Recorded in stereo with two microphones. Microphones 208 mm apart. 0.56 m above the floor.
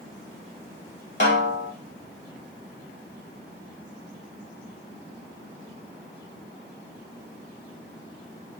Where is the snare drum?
55° left (ahead or behind), 0.7 m.